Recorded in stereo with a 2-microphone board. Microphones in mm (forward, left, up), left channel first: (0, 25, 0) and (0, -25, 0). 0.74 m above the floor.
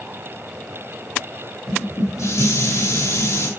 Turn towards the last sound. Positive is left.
turn(degrees=80)